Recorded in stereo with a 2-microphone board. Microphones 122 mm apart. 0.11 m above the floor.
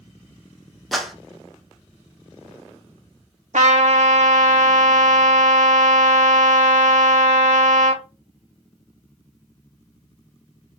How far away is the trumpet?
About 1.0 m.